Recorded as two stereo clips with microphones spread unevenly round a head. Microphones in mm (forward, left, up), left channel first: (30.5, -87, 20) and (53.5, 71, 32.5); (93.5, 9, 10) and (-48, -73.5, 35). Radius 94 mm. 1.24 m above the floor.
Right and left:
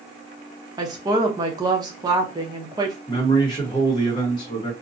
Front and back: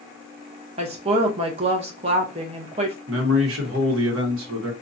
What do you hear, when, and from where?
0.8 s a woman speaking: 150° left, 0.7 m
3.1 s a man speaking: 165° right, 1.0 m